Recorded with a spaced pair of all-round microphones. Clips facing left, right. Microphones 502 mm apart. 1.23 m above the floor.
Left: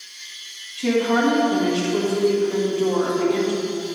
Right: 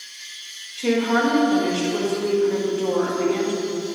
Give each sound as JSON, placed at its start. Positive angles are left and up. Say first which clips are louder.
{"t": 0.8, "sound": "a woman speaking", "louder": "left 1 dB", "side_deg": 35, "distance_m": 1.7}